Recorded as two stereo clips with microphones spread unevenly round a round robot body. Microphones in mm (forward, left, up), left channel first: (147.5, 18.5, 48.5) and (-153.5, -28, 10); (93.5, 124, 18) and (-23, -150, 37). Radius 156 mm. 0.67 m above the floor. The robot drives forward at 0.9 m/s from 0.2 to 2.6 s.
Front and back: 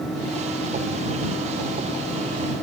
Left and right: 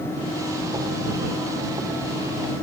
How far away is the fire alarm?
I don't hear a fire alarm.